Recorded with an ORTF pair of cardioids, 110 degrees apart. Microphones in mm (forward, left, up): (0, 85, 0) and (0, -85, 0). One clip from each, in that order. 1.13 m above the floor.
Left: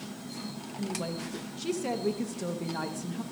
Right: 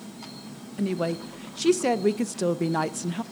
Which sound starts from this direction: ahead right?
A woman speaking, at 0.8 s.